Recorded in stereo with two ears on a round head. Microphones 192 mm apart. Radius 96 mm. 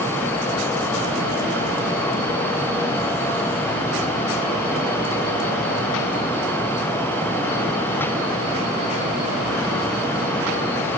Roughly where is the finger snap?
No finger snap in this recording.